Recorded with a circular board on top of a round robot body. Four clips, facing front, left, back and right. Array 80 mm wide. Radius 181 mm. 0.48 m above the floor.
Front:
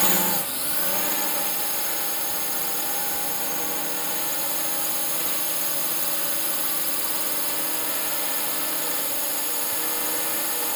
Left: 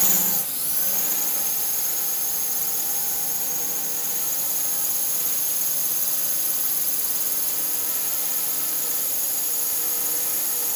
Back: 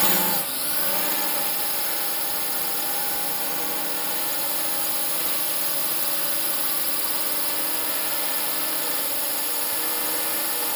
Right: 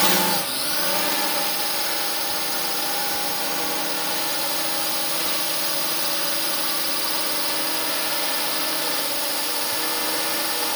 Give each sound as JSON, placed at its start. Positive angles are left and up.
{"t": 0.0, "sound": "a drone", "azimuth_deg": -95}